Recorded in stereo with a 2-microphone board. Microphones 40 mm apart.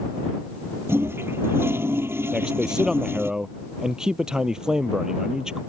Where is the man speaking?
20° right (ahead or behind).